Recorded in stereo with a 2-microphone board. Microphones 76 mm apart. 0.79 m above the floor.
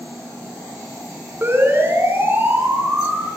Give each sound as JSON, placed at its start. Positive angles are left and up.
{"t": 1.4, "sound": "a siren", "side_deg": -25, "distance_m": 8.0}